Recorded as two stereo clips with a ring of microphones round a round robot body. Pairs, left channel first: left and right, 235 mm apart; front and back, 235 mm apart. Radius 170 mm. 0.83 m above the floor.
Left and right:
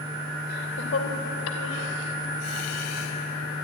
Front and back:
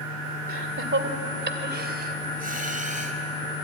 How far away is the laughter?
About 2.5 m.